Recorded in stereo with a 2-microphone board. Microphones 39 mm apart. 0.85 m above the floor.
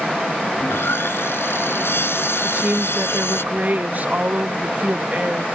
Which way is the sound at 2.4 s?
45° right (ahead or behind).